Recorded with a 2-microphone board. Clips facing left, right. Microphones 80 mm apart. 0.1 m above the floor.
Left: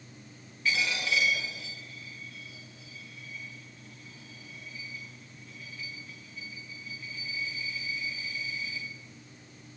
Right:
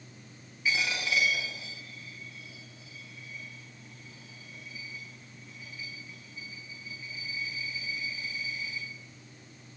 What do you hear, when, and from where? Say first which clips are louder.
0.7 s a dropped coin: left 1 dB; 10° right (ahead or behind), 5.5 m